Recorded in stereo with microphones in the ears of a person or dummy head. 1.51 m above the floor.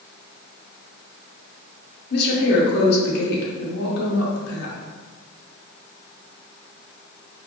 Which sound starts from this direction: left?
A woman speaking, at 2.1 s.